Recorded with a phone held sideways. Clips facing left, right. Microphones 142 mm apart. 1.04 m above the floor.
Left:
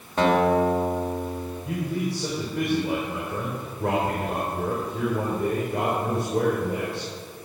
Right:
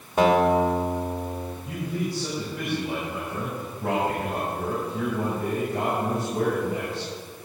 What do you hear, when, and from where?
0.2 s a guitar: 10° right (ahead or behind), 2 m
1.6 s a man speaking: 70° left (ahead or behind), 4 m